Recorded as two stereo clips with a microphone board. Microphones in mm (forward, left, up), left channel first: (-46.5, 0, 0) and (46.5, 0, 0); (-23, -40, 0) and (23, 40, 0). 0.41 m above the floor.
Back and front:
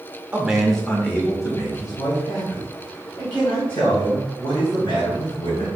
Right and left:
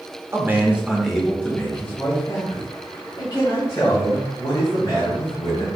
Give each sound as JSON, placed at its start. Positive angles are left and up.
{"t": 0.3, "sound": "a man speaking", "azimuth_deg": 60, "distance_m": 0.9}